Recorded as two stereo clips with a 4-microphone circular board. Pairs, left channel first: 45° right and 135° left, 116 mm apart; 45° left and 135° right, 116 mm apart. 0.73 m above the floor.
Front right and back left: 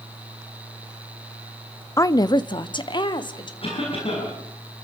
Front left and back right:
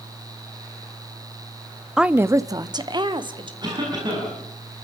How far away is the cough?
About 7 m.